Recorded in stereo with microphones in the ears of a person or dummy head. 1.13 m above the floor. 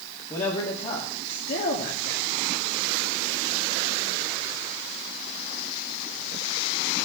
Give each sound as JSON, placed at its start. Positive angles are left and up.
{"t": 0.3, "sound": "a man speaking", "side_deg": 30, "distance_m": 2.0}